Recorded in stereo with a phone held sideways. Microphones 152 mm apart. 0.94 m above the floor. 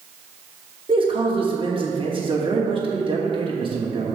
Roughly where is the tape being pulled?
No tape being pulled in this recording.